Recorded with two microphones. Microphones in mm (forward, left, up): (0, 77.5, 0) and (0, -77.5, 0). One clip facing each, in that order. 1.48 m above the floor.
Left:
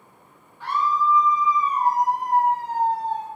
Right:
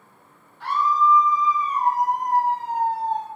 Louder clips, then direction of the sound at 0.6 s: Right 2 dB; 75° right (ahead or behind).